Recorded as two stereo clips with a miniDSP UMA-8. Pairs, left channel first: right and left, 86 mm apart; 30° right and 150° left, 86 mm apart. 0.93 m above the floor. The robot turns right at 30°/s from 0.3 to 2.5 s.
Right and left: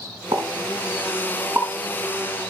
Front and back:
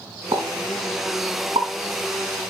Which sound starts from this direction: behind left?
A pop, at 0.3 s.